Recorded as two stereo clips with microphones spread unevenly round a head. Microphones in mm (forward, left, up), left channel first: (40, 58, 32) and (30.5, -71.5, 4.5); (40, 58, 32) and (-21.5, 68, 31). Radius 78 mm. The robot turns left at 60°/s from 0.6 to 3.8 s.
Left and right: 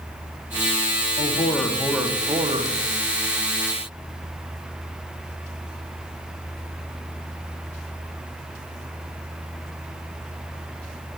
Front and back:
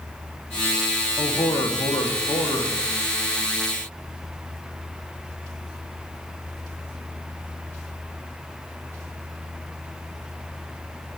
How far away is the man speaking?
About 0.8 m.